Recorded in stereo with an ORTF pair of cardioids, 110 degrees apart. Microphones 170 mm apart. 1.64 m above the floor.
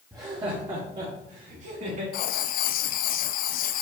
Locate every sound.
0.1 s laughter: 15° right, 1.3 m; by 2.0 s 50° right, 4 m
2.1 s writing: 60° left, 0.5 m